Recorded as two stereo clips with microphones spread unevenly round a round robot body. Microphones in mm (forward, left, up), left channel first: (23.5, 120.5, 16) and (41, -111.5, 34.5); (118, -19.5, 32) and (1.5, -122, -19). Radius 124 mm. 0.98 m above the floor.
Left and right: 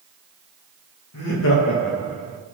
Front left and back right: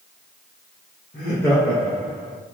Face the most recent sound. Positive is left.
turn(degrees=-145)